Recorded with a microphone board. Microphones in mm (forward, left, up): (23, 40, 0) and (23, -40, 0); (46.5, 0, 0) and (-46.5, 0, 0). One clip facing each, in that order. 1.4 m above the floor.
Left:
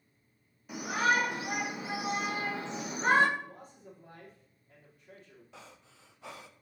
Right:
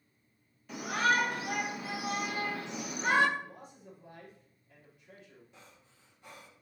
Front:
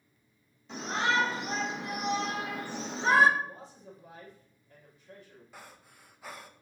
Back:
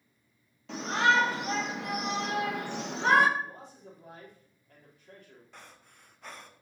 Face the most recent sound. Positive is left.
turn(degrees=85)